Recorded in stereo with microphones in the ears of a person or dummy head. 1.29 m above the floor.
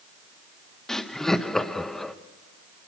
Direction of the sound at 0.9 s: Centre (ahead or behind).